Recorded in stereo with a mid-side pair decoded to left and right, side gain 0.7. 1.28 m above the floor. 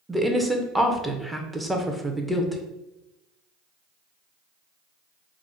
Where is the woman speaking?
10° right, 0.5 m.